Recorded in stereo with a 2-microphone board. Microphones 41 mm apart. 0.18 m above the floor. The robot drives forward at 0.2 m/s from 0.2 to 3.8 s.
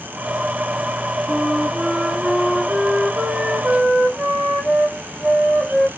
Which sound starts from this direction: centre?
A flute, at 1.3 s.